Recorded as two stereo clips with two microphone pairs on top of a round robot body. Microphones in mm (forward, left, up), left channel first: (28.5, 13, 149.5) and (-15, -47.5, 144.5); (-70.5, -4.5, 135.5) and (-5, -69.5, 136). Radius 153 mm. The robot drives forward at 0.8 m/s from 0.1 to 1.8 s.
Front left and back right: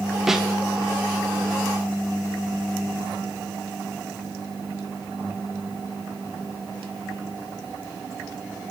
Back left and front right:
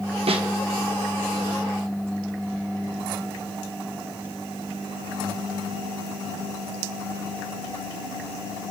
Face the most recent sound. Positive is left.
turn(degrees=-95)